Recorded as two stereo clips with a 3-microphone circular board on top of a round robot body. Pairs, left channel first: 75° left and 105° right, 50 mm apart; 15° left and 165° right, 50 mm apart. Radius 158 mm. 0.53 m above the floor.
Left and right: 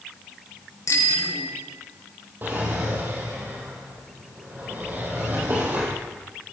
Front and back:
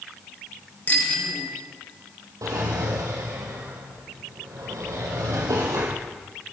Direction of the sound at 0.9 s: 75° left.